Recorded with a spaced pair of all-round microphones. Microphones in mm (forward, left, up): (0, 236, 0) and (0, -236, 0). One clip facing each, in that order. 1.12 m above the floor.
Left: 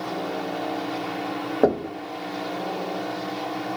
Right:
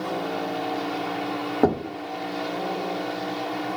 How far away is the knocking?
About 0.6 m.